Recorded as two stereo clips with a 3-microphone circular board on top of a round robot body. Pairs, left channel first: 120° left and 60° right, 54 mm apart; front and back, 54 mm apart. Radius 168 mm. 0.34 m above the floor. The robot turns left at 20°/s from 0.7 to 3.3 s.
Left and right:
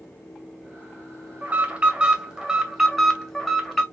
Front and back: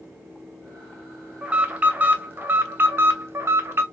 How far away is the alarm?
About 0.9 m.